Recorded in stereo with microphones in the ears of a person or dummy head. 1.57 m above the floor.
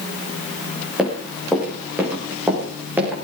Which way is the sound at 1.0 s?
5° right (ahead or behind).